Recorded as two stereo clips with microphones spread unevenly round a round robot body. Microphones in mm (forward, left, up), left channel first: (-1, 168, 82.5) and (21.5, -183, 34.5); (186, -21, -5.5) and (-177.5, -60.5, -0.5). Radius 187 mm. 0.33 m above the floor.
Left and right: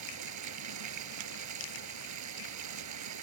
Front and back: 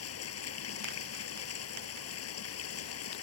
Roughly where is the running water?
Ahead right.